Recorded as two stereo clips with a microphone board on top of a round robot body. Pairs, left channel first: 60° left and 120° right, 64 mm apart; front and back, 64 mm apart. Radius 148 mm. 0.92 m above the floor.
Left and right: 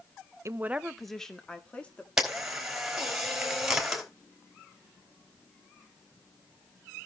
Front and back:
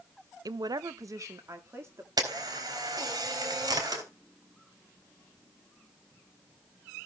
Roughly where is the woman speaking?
Behind.